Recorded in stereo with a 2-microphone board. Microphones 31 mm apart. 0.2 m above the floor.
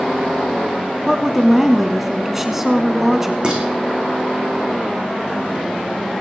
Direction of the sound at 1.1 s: 10° right (ahead or behind).